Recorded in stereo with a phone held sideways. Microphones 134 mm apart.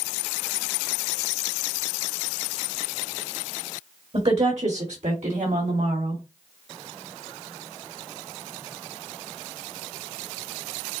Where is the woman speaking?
55° right (ahead or behind), 2 m; by 6.2 s 75° right (ahead or behind), 3.5 m.